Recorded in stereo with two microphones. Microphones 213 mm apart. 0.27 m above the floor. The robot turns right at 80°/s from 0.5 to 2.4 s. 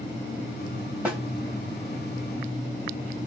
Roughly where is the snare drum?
Centre.